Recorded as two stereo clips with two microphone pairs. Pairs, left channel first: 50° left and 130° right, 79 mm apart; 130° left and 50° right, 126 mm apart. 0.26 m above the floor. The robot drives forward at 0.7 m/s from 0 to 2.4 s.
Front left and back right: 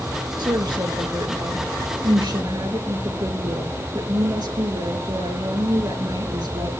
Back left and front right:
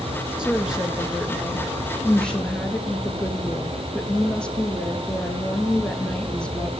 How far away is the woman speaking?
About 3 m.